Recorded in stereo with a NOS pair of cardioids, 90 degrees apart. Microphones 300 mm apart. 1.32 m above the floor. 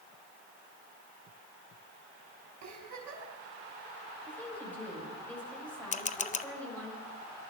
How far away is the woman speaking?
About 7 m.